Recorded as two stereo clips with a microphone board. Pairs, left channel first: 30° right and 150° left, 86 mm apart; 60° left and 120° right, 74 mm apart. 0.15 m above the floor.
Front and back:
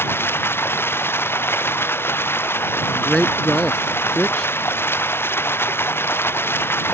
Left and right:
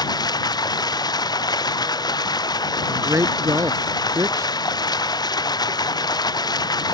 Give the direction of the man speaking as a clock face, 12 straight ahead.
4 o'clock.